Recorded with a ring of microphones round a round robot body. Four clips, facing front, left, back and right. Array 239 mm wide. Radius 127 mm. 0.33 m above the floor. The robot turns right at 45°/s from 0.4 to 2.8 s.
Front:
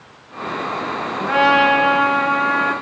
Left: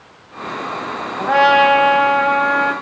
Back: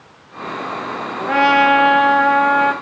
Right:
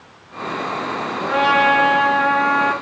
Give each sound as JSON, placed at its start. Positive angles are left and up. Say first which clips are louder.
{"t": 1.2, "sound": "a trumpet", "louder": "left 5 dB, back 1 dB", "azimuth_deg": 110, "distance_m": 2.5}